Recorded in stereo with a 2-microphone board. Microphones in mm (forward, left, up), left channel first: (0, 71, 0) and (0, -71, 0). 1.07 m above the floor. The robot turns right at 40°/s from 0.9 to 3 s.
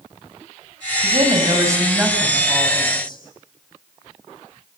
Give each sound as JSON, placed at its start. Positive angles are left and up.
{"t": 1.0, "sound": "a woman speaking", "azimuth_deg": -50, "distance_m": 7.0}